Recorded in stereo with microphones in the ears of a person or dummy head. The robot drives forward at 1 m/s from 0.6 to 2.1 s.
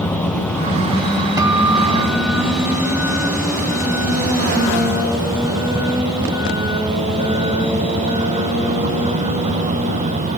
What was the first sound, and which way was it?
A vehicle, 15° left (ahead or behind).